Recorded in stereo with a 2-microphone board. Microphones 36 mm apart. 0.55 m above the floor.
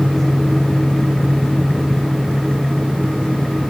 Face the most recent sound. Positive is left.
No sound to turn to.